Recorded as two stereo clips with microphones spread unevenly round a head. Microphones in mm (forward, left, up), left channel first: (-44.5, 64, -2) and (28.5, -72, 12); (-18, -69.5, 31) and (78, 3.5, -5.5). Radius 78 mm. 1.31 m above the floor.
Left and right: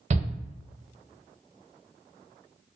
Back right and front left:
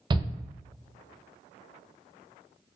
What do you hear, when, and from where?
0.1 s a shout: 10° right, 0.5 m